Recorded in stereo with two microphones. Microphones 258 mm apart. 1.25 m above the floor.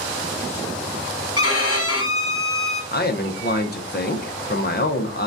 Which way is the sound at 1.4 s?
60° left (ahead or behind).